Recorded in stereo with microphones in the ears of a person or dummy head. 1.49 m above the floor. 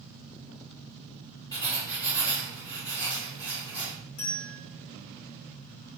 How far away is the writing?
About 1.0 m.